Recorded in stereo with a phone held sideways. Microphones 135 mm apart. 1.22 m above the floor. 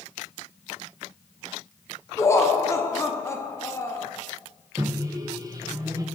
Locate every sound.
2.2 s laughter: 20° left (ahead or behind), 0.5 m
4.8 s a microwave: 25° right (ahead or behind), 0.5 m